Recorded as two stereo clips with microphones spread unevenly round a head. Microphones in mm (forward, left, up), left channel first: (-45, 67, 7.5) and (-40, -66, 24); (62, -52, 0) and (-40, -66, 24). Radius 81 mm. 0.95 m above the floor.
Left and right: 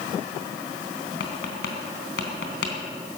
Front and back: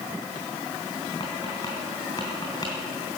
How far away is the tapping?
About 3 m.